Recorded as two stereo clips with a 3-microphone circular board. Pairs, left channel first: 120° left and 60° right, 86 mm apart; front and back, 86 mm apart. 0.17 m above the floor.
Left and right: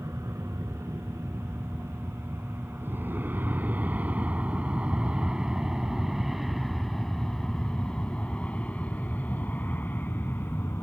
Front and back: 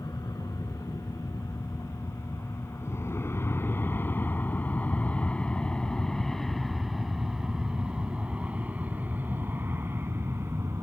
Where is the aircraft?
20° right; by 10.8 s 160° left.